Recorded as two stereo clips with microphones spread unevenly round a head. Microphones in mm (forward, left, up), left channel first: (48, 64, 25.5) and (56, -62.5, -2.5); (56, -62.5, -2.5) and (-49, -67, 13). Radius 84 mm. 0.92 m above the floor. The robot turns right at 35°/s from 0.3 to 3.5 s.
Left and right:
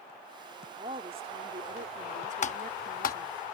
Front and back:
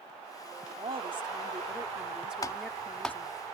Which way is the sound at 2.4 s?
65° left.